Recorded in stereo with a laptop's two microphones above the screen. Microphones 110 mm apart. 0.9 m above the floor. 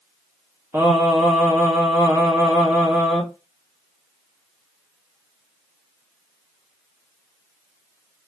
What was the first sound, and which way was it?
Singing, 25° right (ahead or behind).